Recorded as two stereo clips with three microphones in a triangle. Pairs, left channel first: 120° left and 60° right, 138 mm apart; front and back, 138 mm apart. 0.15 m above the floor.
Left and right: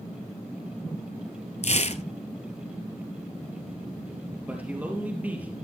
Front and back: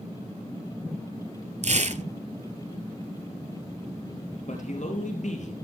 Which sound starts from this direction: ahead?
A man speaking, at 4.5 s.